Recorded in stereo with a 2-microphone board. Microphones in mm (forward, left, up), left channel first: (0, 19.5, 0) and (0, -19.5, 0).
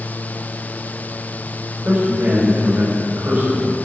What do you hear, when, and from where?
1.9 s a man speaking: 55° right (ahead or behind), 6 m